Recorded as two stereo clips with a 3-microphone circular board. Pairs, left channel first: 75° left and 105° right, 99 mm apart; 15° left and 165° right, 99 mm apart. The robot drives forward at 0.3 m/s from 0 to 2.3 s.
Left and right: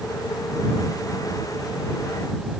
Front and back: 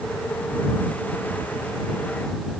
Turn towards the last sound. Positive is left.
No sound to turn to.